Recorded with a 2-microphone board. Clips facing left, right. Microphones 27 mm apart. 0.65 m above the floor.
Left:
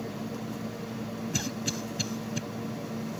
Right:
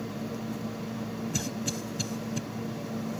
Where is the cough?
20° left (ahead or behind).